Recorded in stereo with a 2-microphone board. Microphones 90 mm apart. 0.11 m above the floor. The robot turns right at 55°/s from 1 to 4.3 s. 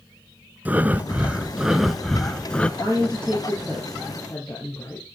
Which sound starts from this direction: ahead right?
A woman speaking, at 2.8 s.